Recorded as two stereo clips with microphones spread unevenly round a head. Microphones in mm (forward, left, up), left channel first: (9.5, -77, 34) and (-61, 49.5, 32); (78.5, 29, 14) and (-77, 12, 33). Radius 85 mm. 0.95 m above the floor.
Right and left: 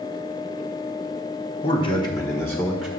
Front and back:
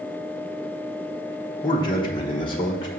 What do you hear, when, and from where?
1.6 s a man speaking: 35° right, 1.0 m; by 2.9 s 30° left, 1.0 m